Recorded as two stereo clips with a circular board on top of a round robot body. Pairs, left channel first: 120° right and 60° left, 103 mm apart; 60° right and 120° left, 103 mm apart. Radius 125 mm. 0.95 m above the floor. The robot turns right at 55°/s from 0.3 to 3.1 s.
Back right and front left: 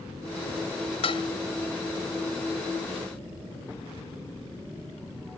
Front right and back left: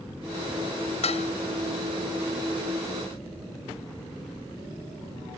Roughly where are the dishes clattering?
Right.